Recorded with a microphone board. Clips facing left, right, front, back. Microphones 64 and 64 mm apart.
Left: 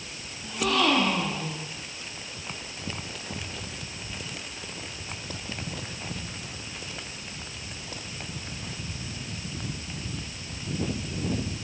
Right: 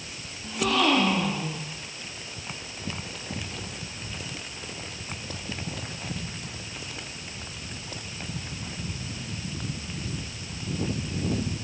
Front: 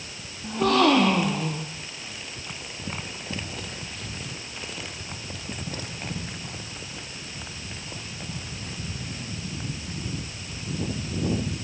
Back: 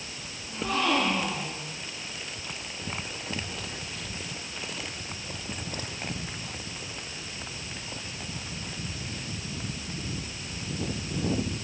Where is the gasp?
Straight ahead, 4.5 m.